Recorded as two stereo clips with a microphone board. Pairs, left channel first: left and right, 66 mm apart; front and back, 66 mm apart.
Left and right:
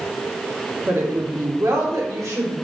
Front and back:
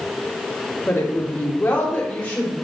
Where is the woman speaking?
50° right, 1.5 m; by 2.5 s 65° right, 3 m.